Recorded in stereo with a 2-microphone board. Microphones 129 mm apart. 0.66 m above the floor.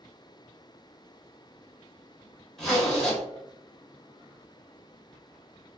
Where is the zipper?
5° left (ahead or behind), 1.3 m.